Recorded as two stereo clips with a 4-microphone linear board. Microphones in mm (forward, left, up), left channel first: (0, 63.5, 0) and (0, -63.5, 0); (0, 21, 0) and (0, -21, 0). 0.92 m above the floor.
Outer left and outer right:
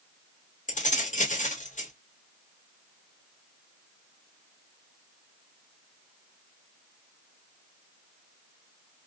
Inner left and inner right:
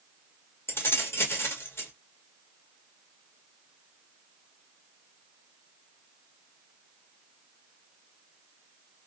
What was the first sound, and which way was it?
Keys jangling, 75° left (ahead or behind).